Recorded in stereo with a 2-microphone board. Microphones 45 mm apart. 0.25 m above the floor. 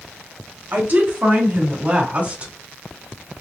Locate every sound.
0.7 s a woman speaking: 50° right (ahead or behind), 2.5 m; by 2.5 s 30° right (ahead or behind), 1.6 m